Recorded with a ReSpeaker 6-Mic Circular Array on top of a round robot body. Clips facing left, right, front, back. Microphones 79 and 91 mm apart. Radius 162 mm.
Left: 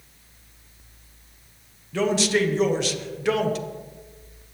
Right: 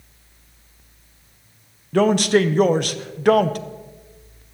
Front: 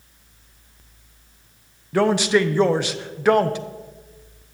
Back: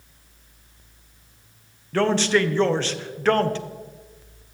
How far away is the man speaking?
About 1.0 m.